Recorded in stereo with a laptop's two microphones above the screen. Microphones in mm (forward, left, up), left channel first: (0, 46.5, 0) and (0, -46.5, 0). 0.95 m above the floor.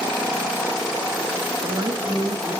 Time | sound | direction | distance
1.6 | a woman speaking | 50° right (ahead or behind) | 1.2 m